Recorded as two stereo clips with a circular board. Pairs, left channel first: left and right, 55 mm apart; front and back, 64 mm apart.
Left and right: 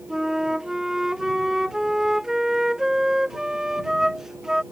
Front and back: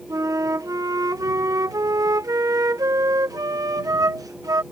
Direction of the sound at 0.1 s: 170° right.